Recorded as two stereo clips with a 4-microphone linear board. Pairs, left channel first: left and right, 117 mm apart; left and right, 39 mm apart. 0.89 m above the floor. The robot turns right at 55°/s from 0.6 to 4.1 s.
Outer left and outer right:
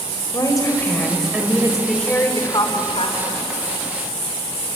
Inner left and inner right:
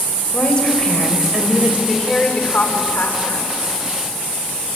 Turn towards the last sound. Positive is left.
turn(degrees=125)